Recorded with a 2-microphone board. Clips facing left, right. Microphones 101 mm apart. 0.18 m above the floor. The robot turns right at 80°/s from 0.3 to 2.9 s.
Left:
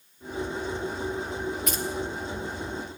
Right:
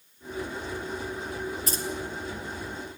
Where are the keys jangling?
30° right (ahead or behind), 3 m; by 1.8 s 45° right (ahead or behind), 3 m.